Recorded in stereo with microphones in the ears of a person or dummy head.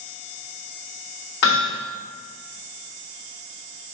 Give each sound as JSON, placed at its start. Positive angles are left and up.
{"t": 1.4, "sound": "hammering", "side_deg": 65, "distance_m": 2.5}